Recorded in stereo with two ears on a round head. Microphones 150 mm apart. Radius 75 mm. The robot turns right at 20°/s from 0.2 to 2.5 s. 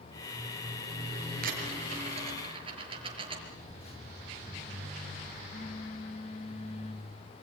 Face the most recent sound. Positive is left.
turn(degrees=40)  # may be behind; listen again after turning